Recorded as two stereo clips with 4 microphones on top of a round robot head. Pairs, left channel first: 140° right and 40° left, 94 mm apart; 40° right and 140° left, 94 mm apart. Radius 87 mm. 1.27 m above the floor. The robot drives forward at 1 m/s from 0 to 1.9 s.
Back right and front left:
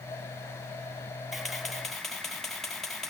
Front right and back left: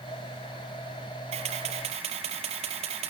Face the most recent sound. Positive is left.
turn(degrees=135)